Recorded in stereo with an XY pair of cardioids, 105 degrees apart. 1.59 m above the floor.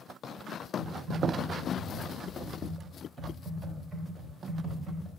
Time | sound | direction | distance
0.8 | typing on a keyboard | 35° right | 2.5 m